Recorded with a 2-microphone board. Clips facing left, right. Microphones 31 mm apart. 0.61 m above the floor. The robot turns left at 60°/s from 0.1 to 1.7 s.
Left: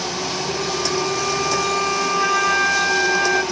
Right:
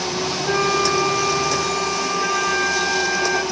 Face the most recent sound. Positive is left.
turn(degrees=170)